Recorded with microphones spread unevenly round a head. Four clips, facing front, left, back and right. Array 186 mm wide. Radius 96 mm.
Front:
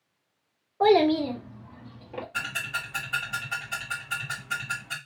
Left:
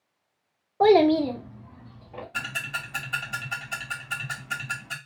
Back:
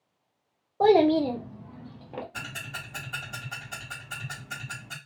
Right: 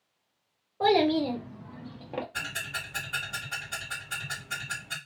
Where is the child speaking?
120° left, 0.6 m; by 2.2 s 100° right, 0.7 m.